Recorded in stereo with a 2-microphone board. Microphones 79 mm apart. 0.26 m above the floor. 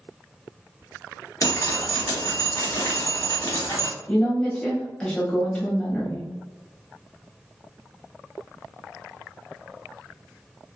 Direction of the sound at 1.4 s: 45° left (ahead or behind).